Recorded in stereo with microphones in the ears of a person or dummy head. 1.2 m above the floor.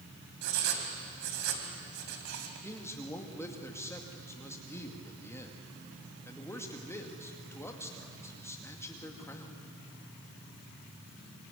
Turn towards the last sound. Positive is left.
turn(degrees=15)  # may be behind; listen again after turning